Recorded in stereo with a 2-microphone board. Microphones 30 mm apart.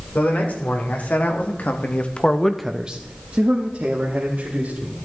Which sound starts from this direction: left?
A man speaking, at 0.1 s.